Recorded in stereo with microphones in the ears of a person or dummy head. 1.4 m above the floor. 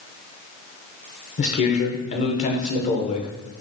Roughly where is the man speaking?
Left.